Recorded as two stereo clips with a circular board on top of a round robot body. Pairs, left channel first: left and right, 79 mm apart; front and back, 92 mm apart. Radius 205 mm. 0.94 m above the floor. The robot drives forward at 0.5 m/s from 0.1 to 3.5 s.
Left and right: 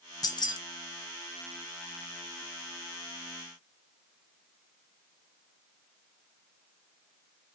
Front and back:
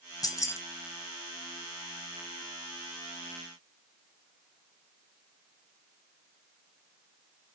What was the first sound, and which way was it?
Keys jangling, 50° left.